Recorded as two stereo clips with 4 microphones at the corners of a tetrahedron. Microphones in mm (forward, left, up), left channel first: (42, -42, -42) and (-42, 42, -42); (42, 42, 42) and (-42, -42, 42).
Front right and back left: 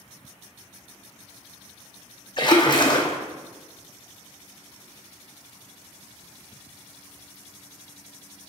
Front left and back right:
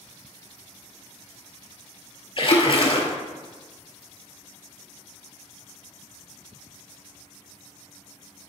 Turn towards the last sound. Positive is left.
turn(degrees=0)